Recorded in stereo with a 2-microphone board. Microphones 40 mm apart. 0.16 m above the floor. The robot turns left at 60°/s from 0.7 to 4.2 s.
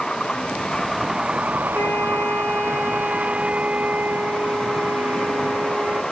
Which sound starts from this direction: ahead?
A vehicle, at 0.0 s.